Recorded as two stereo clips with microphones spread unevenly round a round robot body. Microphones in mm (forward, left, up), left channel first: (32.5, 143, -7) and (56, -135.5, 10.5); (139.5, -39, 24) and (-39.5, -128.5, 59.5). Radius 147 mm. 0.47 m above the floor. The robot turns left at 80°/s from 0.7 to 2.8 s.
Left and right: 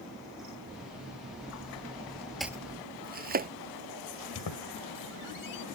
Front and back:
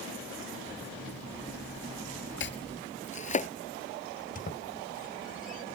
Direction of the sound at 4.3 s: 80° left.